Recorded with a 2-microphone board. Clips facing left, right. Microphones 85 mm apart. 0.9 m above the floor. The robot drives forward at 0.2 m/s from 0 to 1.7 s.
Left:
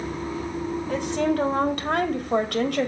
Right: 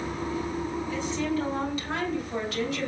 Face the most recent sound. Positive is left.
turn(degrees=60)  # may be behind; listen again after turning